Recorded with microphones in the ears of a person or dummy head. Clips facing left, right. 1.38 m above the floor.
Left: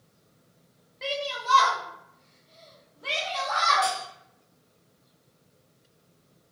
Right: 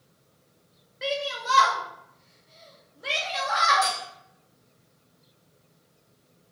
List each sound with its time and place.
1.0 s a shout: 20° right (ahead or behind), 0.6 m
3.8 s cutlery clinking: 55° right (ahead or behind), 1.6 m